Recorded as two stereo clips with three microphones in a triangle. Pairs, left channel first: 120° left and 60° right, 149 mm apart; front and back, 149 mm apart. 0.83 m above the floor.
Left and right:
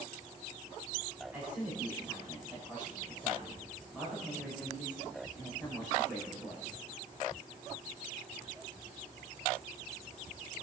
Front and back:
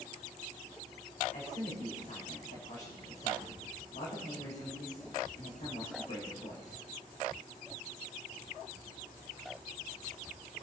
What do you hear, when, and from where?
1.3 s a man speaking: 20° left, 4 m